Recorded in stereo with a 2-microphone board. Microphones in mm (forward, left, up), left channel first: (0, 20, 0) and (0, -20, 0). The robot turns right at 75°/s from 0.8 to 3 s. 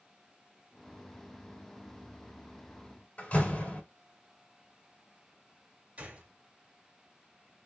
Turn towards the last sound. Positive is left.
turn(degrees=-40)  # may be behind; listen again after turning